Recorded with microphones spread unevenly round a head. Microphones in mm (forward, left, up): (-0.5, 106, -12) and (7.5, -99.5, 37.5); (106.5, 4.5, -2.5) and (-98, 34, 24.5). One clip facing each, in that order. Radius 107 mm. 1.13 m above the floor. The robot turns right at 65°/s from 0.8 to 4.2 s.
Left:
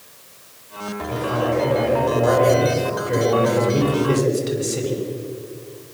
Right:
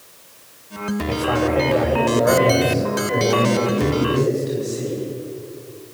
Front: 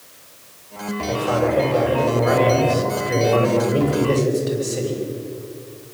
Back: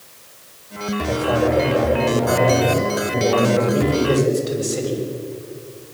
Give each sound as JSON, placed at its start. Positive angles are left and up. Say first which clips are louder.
{"t": 1.1, "sound": "a man speaking", "louder": "right 1 dB, back 1 dB", "azimuth_deg": -105, "distance_m": 6.0}